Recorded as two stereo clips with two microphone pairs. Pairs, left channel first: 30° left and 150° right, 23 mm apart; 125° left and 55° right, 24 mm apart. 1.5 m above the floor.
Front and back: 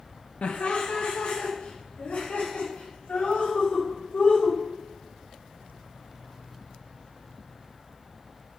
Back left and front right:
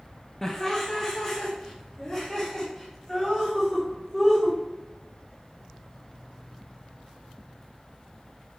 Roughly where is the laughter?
Ahead left.